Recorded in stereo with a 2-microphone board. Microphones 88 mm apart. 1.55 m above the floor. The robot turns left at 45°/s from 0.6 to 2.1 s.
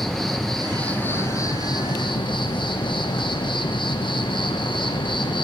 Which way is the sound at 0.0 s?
Straight behind.